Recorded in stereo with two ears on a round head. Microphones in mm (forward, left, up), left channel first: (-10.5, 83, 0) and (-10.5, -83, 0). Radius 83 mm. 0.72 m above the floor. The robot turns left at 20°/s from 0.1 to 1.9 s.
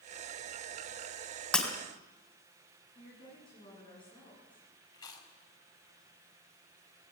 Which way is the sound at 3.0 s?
30° left (ahead or behind).